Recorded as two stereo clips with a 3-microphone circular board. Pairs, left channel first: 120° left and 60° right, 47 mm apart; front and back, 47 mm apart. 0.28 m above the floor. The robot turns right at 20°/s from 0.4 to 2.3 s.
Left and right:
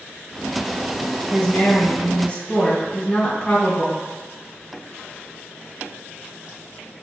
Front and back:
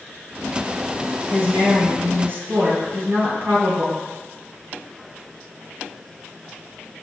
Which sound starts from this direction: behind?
A woman speaking, at 1.3 s.